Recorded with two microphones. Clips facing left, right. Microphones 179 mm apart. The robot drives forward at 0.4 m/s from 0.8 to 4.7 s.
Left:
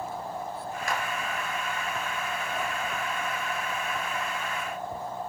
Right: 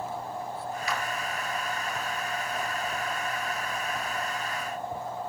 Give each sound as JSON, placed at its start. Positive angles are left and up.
{"t": 0.9, "sound": "a clap", "side_deg": 50, "distance_m": 2.5}